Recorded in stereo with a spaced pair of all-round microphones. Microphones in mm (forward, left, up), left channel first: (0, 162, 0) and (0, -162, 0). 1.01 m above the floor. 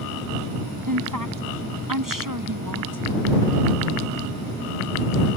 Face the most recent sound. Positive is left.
turn(degrees=-85)